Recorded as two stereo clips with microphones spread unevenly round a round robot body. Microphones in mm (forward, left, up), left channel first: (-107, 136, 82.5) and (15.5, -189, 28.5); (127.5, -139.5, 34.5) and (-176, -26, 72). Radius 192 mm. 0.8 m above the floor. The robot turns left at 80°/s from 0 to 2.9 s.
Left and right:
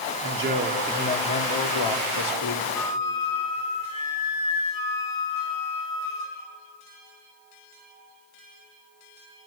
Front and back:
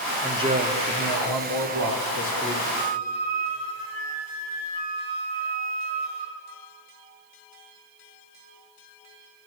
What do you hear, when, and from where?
0.2 s a man speaking: 110° right, 2.5 m; by 2.6 s 60° left, 2.5 m
2.7 s a flute: 155° left, 6.5 m; by 6.4 s 145° left, 6.5 m